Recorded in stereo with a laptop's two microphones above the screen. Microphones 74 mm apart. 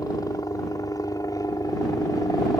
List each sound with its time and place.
0.0 s a helicopter: 55° left (ahead or behind)